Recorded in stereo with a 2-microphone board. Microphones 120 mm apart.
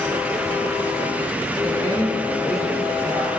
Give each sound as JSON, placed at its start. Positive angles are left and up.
{"t": 1.6, "sound": "a woman speaking", "side_deg": 25, "distance_m": 5.5}